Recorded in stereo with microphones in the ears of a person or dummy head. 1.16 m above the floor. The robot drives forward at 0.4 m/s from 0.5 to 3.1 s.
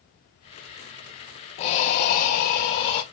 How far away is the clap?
I don't hear a clap.